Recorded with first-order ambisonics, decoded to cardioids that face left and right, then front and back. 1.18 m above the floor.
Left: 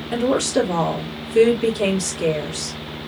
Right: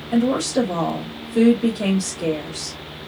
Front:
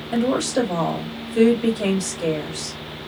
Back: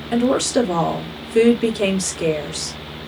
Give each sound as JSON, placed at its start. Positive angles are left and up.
{"t": 0.1, "sound": "a woman speaking", "azimuth_deg": 160, "distance_m": 2.5}